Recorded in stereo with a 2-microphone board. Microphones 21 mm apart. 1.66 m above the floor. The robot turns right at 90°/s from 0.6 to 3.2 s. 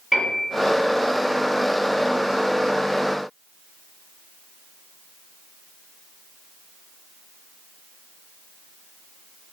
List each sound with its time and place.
0.1 s a piano: 10° right (ahead or behind), 1.5 m